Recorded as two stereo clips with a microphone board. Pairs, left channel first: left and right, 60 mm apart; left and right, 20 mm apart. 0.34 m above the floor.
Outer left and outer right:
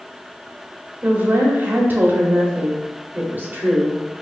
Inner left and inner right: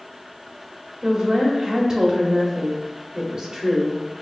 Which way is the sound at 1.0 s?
35° right (ahead or behind).